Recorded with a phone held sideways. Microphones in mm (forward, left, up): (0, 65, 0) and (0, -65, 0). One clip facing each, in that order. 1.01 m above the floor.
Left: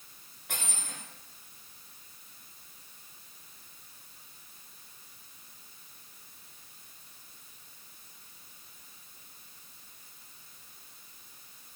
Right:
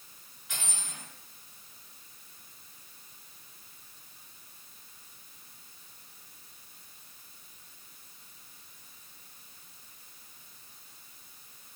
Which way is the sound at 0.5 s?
60° left (ahead or behind).